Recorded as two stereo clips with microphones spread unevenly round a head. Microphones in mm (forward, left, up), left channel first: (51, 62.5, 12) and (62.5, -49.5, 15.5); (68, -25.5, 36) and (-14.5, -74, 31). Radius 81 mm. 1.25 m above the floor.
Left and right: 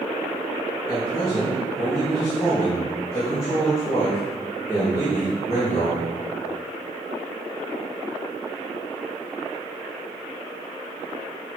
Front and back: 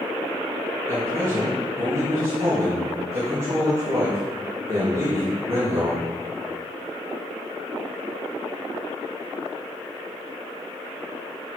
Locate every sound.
0.9 s a man speaking: 165° left, 2 m